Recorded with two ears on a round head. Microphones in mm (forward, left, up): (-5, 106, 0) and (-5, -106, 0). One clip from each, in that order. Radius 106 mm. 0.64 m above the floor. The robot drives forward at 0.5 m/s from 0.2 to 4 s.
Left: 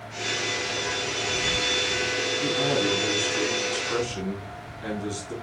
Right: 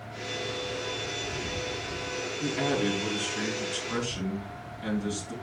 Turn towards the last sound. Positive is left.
turn(degrees=0)  # may be behind; listen again after turning